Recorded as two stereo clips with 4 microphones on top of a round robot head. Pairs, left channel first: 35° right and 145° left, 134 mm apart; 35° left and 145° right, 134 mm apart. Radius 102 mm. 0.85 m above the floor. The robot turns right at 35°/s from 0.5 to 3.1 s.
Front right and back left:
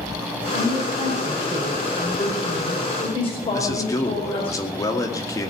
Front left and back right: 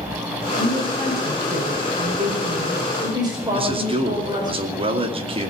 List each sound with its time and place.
0.5 s a woman speaking: 175° right, 4.5 m; by 4.5 s 85° right, 4.5 m
3.5 s a man speaking: 100° right, 2.5 m